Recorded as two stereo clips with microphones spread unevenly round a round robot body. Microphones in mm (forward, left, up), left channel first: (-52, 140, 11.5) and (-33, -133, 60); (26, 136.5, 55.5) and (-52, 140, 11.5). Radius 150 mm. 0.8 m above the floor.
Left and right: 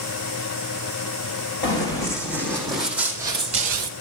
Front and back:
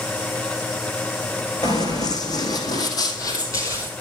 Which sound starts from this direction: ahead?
Running footsteps, at 1.6 s.